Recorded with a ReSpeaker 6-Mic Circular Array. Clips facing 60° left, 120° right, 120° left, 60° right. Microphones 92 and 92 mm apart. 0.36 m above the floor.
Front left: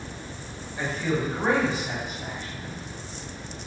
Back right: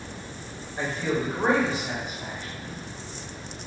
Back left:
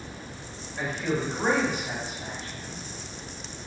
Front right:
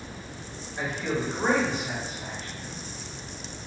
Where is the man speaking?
125° right, 1.4 m; by 2.8 s 170° left, 1.6 m.